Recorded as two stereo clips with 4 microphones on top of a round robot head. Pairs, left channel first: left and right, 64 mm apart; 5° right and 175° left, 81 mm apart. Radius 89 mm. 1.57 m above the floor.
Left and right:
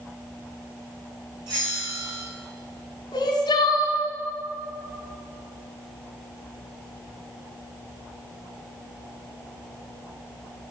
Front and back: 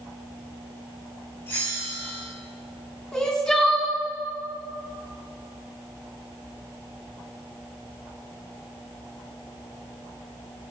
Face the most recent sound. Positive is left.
turn(degrees=75)